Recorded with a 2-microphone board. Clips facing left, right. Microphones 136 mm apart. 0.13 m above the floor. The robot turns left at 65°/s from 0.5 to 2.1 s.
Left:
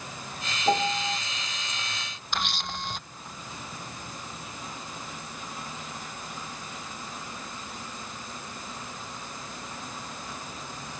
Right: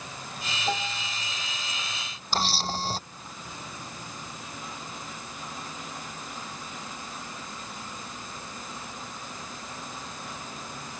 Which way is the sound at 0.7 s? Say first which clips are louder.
Left 7 dB; 155° left.